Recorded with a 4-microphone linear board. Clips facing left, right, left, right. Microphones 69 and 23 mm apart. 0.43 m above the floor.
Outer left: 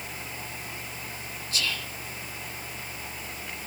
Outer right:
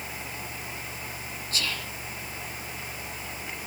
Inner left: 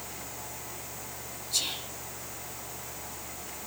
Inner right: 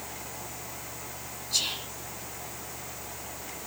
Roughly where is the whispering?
Right.